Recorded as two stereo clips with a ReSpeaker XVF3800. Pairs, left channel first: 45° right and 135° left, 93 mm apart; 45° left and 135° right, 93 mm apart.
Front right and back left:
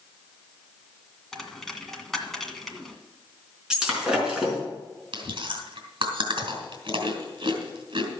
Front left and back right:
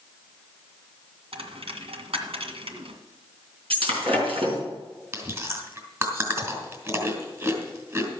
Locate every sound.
1.3 s a dropped coin: 130° right, 1.8 m
3.7 s breaking glass: 145° right, 4.5 m
5.1 s chewing: 165° left, 3 m